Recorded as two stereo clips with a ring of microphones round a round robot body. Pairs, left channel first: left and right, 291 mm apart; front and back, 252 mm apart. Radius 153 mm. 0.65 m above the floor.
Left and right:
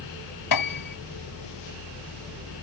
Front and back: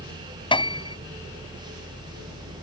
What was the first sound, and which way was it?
A piano, 70° left.